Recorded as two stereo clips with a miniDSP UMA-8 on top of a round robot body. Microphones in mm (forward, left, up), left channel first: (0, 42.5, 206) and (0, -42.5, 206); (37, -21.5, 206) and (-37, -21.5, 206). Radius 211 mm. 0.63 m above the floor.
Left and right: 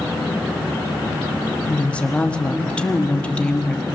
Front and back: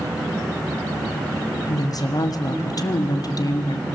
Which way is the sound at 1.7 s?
15° left.